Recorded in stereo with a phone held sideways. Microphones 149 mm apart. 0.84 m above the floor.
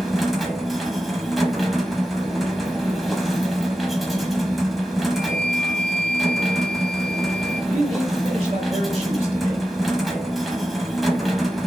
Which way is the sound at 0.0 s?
Centre (ahead or behind).